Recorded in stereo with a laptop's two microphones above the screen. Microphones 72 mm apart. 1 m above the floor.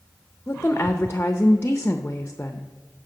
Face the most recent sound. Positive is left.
turn(degrees=25)  # may be behind; listen again after turning